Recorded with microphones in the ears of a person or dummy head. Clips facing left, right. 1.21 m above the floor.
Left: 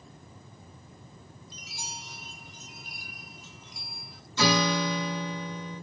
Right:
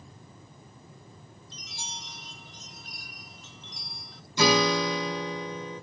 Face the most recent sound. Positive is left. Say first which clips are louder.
# right 2 dB
turn(degrees=-15)  # may be behind; listen again after turning